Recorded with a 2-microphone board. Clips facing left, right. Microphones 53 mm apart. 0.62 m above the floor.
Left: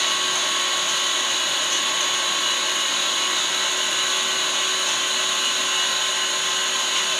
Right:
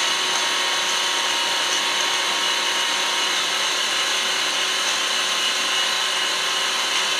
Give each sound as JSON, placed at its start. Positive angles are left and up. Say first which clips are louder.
{"t": 0.0, "sound": "an engine running", "louder": "right 1 dB", "side_deg": -60, "distance_m": 0.7}